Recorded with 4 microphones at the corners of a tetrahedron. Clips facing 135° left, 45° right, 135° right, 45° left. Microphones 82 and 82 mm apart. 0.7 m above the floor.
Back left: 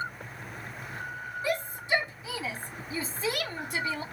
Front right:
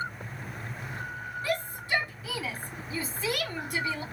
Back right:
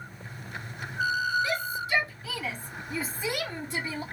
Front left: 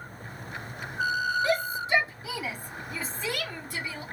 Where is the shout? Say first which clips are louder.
Back left 1 dB, front left 3 dB; 70° left, 1.4 m; by 4.0 s straight behind, 1.5 m.